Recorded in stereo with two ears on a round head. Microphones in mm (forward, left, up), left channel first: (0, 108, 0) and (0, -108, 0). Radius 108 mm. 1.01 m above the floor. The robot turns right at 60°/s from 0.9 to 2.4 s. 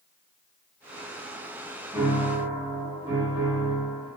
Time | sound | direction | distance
1.9 | a piano | 5° left (ahead or behind) | 0.9 m